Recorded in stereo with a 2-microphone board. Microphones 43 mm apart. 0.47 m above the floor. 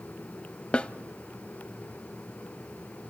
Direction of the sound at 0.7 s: 30° left (ahead or behind).